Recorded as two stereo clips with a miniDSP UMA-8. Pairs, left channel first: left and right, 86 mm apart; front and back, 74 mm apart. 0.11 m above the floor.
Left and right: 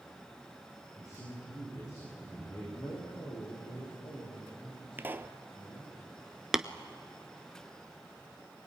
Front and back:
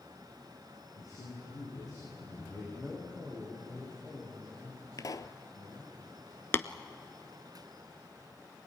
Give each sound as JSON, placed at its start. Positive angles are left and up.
{"t": 1.0, "sound": "a man speaking", "azimuth_deg": 35, "distance_m": 8.0}
{"t": 2.7, "sound": "a man speaking", "azimuth_deg": 85, "distance_m": 7.5}
{"t": 5.0, "sound": "a pop", "azimuth_deg": -30, "distance_m": 0.8}
{"t": 6.5, "sound": "tapping", "azimuth_deg": -10, "distance_m": 0.7}